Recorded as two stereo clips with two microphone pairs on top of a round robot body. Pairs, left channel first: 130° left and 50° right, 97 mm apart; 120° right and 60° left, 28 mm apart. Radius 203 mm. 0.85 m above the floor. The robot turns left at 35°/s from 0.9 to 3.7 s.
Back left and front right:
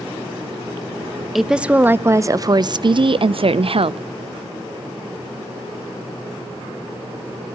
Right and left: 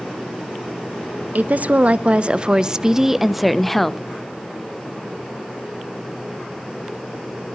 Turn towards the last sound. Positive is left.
turn(degrees=-45)